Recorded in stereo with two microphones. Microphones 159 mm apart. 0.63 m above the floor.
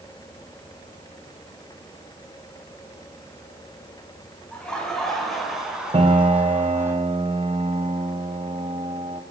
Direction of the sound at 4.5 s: 5° left (ahead or behind).